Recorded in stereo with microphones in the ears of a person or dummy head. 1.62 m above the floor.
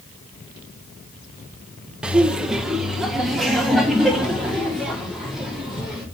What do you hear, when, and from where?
2.0 s laughter: 10° right (ahead or behind), 0.9 m; by 6.0 s centre (ahead or behind), 5.5 m